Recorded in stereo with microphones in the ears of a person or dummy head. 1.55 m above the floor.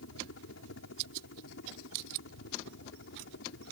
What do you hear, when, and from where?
0.0 s a helicopter: 70° left (ahead or behind); by 3.7 s 60° left (ahead or behind)